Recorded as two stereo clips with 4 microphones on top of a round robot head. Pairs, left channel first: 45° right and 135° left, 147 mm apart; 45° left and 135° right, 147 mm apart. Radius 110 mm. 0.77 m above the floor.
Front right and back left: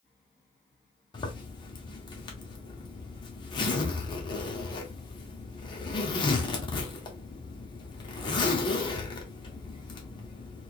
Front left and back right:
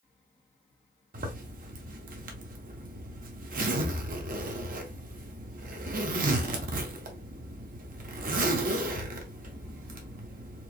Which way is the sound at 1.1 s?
105° right.